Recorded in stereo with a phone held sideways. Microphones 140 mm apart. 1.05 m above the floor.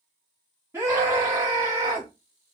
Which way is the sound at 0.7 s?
20° right (ahead or behind).